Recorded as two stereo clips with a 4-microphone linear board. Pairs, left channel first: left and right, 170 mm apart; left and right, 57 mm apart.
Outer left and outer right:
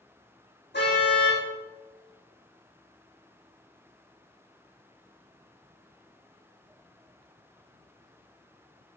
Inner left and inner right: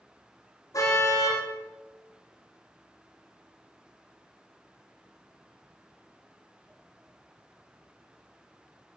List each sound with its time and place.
0.7 s a car horn: 70° left (ahead or behind), 9.5 m